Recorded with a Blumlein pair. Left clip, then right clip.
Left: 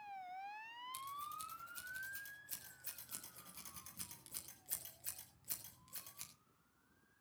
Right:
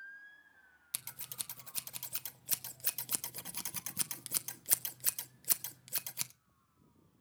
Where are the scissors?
55° right, 1.1 m.